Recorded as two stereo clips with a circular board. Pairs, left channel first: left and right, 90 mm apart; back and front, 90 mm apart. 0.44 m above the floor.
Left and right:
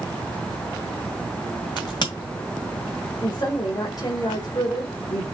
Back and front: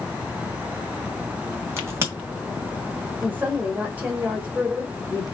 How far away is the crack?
About 1.9 m.